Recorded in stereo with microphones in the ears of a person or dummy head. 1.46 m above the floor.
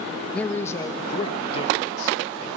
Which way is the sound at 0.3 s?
5° left (ahead or behind).